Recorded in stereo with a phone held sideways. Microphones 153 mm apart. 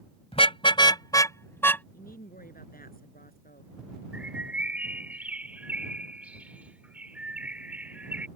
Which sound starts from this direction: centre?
A bird, at 4.1 s.